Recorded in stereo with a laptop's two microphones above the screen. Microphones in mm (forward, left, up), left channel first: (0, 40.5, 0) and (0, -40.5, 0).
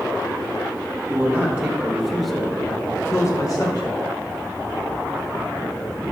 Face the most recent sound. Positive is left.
turn(degrees=60)  # may be behind; listen again after turning